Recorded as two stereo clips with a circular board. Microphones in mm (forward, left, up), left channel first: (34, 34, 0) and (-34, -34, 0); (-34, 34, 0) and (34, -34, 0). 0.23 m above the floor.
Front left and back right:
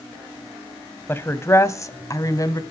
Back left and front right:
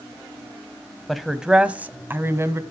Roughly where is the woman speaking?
Ahead left.